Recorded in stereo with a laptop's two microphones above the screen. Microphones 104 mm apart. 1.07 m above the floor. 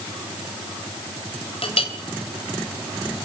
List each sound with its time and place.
1.6 s a clink: 70° left (ahead or behind), 4 m